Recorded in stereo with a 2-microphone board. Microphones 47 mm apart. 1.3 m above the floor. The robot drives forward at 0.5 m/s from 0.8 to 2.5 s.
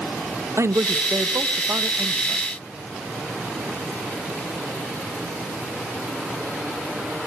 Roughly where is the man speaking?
Right.